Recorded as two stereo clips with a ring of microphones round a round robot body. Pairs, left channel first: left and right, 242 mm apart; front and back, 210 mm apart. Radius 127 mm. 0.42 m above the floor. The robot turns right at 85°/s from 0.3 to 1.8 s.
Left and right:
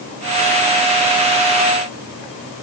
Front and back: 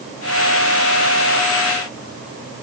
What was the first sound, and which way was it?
Only background noise.